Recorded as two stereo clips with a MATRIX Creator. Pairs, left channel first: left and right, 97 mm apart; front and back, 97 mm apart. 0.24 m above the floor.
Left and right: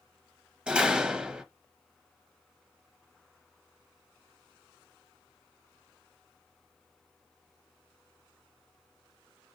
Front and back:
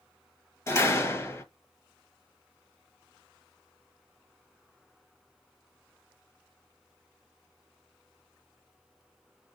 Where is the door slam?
20° right, 0.8 m.